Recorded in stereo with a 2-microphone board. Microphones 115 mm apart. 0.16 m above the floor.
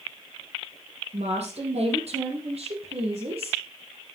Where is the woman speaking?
70° right (ahead or behind), 6 m; by 3.6 s 60° right (ahead or behind), 5 m.